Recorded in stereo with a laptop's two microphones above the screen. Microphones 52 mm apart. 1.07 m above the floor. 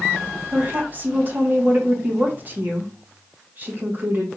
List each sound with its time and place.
0.5 s a woman speaking: 35° right (ahead or behind), 1.1 m